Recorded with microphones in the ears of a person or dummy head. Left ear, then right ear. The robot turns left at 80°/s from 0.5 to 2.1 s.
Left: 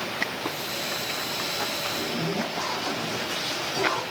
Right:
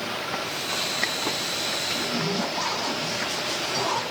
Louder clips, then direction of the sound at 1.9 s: Right 2 dB; 30° right (ahead or behind).